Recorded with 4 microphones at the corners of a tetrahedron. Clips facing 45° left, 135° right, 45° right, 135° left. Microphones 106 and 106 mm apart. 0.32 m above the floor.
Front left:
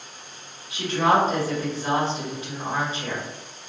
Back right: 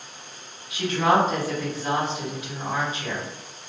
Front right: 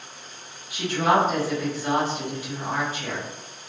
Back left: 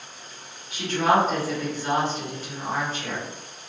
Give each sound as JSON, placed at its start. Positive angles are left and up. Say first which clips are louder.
{"t": 0.7, "sound": "a woman speaking", "louder": "even, even", "azimuth_deg": 30, "distance_m": 1.3}